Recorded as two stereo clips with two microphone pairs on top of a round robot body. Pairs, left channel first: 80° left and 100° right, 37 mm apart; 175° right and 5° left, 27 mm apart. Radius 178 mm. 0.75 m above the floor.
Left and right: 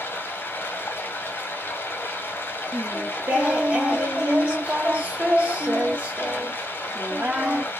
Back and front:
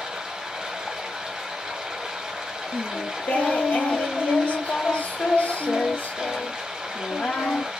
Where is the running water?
70° left, 1.1 m.